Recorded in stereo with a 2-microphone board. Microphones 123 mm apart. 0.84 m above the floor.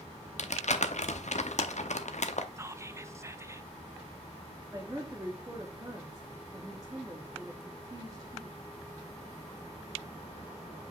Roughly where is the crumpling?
Left.